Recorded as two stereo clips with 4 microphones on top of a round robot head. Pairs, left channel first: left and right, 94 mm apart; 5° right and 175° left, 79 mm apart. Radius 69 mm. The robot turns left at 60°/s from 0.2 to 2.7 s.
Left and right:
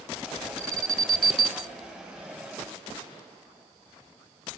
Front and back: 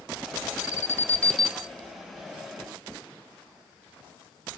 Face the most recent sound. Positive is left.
turn(degrees=-165)